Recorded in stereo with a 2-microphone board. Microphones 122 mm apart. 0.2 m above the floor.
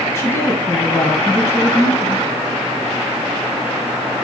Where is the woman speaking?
25° left (ahead or behind), 1.9 m.